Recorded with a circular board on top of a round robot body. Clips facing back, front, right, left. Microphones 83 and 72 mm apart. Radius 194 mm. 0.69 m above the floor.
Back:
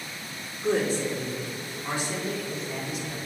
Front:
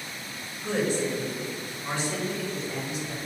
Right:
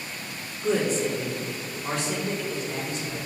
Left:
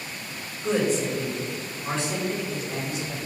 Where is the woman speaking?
135° right, 2 m; by 3.2 s 85° right, 3 m.